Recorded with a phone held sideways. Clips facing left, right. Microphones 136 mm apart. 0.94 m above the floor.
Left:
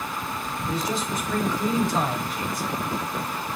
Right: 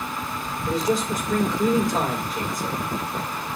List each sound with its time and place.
0.7 s a man speaking: 45° right (ahead or behind), 4.5 m